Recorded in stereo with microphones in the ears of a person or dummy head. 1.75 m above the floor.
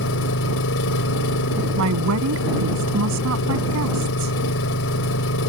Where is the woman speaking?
85° right.